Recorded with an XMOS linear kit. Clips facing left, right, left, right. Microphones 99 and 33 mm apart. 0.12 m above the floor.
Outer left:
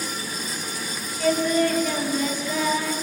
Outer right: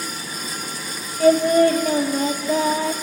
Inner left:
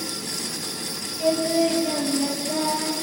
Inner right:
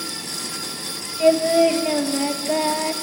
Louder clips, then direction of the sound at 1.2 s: Outer right 7 dB, inner right 6 dB; 40° right (ahead or behind).